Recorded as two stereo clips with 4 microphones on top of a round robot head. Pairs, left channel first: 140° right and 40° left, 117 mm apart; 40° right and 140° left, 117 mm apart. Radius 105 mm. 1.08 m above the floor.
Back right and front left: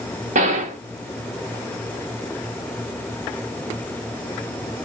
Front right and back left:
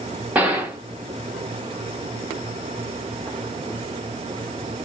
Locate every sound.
0.3 s a gunshot: 60° left, 0.9 m